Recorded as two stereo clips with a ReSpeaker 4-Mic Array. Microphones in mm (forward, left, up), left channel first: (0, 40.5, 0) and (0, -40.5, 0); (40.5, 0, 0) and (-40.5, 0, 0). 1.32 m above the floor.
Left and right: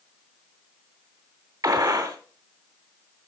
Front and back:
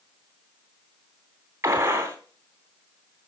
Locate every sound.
1.6 s a gunshot: 125° right, 3 m